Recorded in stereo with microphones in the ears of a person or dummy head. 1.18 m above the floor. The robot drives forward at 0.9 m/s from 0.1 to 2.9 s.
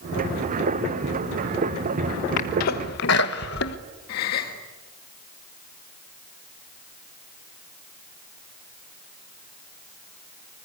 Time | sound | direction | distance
2.4 | a sneeze | 45° left (ahead or behind) | 1.4 m
4.1 | a gasp | 55° left (ahead or behind) | 1.6 m